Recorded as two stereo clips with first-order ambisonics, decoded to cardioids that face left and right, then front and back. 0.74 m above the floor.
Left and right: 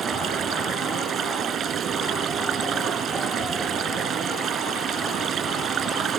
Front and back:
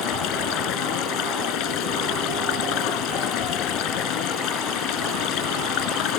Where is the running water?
30° right.